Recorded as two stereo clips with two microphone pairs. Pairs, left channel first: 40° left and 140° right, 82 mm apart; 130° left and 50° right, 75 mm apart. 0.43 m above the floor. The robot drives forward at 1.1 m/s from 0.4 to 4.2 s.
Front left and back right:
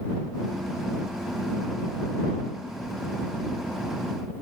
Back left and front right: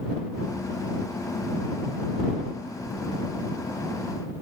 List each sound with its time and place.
Only background noise.